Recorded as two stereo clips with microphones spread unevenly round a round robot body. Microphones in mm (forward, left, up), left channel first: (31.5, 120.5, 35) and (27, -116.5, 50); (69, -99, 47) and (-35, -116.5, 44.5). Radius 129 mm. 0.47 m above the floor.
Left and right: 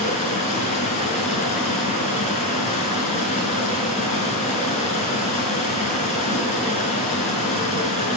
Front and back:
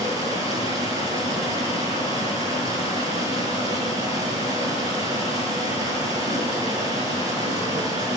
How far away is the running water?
About 5 m.